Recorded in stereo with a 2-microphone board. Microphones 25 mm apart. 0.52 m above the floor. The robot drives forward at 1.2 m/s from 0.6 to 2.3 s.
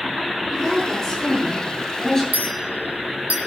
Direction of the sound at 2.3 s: 85° right.